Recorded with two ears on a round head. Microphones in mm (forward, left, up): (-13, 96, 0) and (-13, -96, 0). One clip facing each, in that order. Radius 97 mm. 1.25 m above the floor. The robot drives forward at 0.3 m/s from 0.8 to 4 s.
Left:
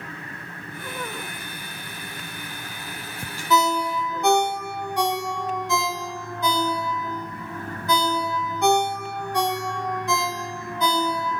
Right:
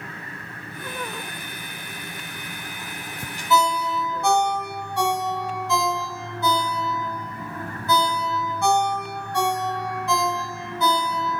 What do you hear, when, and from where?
3.5 s a ringtone: 15° left (ahead or behind), 0.6 m